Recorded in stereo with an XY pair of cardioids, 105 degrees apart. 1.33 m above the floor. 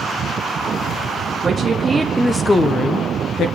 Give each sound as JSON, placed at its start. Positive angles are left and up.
{"t": 1.4, "sound": "a woman speaking", "azimuth_deg": -40, "distance_m": 0.8}